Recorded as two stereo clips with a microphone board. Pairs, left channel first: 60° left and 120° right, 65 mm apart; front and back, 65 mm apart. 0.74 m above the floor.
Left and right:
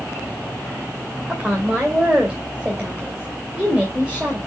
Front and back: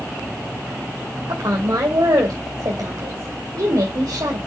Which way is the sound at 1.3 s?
165° left.